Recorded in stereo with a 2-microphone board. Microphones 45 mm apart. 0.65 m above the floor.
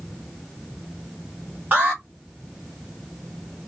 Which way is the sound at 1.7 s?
40° right (ahead or behind).